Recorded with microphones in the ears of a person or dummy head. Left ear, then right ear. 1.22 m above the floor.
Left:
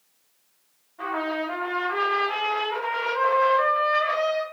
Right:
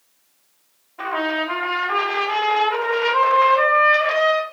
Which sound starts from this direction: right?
A trumpet, at 1.0 s.